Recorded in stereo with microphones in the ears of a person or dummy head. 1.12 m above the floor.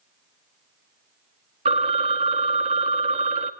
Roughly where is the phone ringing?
Right.